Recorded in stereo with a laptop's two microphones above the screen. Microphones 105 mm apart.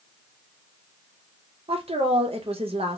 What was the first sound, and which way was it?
A woman speaking, 65° right (ahead or behind).